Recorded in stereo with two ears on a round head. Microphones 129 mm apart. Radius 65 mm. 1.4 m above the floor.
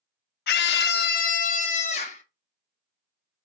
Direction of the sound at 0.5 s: 75° left (ahead or behind).